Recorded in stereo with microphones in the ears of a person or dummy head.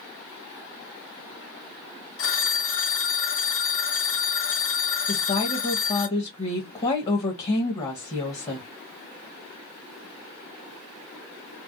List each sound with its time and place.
2.2 s a phone ringing: 70° left (ahead or behind), 1.1 m
5.1 s a woman speaking: 35° left (ahead or behind), 1.2 m